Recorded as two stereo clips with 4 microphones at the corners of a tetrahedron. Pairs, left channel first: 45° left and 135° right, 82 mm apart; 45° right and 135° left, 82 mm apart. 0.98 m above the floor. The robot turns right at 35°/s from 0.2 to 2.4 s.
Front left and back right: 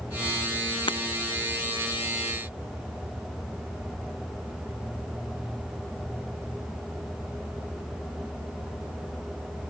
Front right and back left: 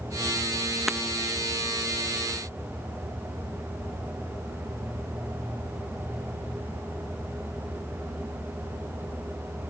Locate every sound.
0.9 s breaking glass: 45° left; by 1.0 s 50° left